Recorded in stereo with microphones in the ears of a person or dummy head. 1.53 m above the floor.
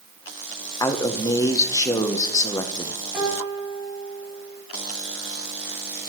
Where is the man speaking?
25° left (ahead or behind), 0.9 m.